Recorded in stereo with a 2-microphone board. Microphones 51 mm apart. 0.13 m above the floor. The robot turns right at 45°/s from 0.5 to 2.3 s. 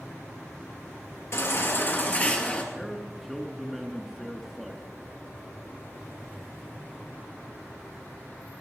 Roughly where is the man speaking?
Centre.